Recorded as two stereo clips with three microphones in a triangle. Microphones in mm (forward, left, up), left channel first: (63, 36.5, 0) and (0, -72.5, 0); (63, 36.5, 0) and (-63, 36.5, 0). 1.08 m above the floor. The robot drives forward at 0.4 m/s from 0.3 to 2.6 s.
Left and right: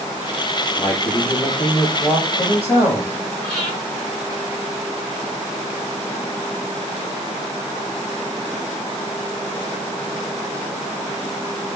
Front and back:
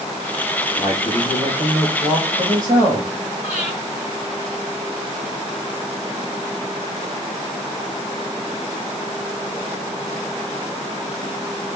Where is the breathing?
105° left, 5 m.